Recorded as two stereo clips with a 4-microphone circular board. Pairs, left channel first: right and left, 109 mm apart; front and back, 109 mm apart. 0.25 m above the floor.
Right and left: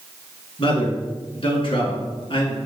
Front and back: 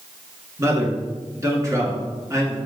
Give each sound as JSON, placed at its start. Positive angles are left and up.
{"t": 0.6, "sound": "a man speaking", "azimuth_deg": -120, "distance_m": 2.5}